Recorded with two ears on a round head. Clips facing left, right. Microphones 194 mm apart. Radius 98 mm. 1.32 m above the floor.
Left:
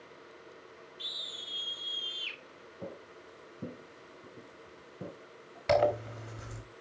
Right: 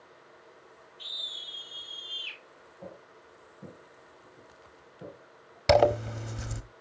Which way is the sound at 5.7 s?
55° right (ahead or behind).